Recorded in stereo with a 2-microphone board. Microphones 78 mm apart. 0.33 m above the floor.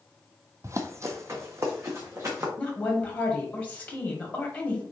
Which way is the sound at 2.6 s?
20° left (ahead or behind).